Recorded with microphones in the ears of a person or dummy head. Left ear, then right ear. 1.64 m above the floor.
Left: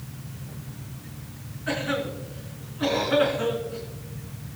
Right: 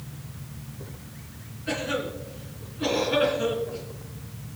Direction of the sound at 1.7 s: 40° left (ahead or behind).